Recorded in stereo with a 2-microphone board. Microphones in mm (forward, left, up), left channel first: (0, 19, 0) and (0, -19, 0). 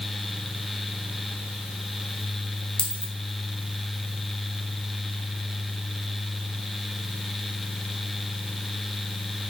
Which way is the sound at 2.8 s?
25° left (ahead or behind).